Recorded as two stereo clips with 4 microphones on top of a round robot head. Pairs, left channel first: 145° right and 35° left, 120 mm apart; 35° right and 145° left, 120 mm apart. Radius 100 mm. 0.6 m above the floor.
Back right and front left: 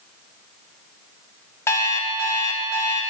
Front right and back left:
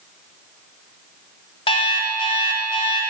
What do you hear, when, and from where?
1.7 s an alarm clock: 80° right, 1.4 m